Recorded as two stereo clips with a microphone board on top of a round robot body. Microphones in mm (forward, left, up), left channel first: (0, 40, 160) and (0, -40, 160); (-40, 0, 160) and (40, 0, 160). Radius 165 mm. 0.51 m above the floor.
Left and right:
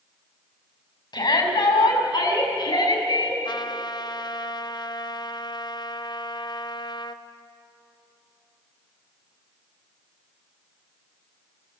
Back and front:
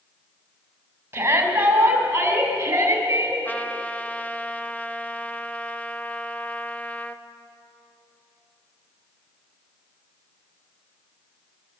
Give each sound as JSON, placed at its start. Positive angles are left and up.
{"t": 1.1, "sound": "a shout", "azimuth_deg": 65, "distance_m": 6.5}
{"t": 3.5, "sound": "a trumpet", "azimuth_deg": 110, "distance_m": 1.3}